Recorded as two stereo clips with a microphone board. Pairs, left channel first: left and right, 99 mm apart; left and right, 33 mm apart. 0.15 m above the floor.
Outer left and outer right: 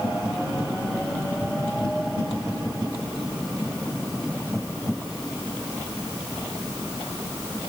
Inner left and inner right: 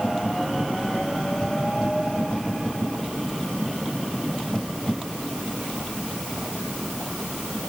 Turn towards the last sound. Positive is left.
No sound to turn to.